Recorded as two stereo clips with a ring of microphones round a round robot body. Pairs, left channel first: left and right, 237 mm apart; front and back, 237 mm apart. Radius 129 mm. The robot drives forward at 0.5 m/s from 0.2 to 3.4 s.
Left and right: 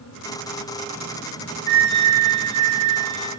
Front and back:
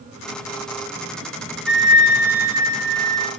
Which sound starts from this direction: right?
A flute, at 1.7 s.